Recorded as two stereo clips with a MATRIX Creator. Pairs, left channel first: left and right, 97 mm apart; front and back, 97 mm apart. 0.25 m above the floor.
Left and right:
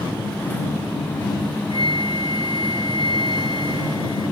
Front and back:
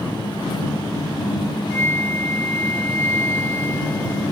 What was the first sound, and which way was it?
A flute, 65° left.